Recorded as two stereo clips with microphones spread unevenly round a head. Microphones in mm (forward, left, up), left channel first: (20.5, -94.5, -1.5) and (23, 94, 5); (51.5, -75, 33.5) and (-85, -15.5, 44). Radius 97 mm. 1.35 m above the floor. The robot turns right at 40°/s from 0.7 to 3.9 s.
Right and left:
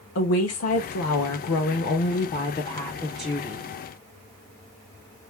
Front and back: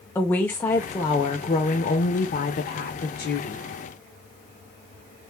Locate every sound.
0.1 s a woman speaking: 100° right, 1.1 m; by 3.6 s 15° left, 1.1 m